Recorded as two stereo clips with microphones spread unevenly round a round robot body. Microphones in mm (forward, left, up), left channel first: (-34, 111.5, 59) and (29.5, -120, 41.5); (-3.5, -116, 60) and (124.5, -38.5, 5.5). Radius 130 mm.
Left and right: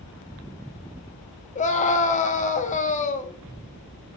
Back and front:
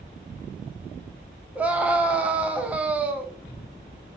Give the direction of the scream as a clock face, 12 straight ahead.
10 o'clock.